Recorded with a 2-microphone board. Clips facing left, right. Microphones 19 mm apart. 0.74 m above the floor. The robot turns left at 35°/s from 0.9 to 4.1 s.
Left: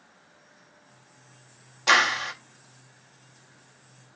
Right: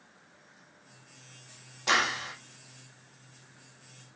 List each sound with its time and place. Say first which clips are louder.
1.9 s a clap: left 6 dB; 20° left (ahead or behind), 1.0 m; by 2.3 s 35° left (ahead or behind), 1.0 m